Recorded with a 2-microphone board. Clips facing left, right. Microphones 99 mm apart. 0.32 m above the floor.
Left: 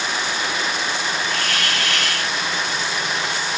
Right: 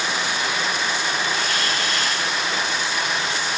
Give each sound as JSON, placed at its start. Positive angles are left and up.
{"t": 1.3, "sound": "a hiss", "side_deg": 75, "distance_m": 1.4}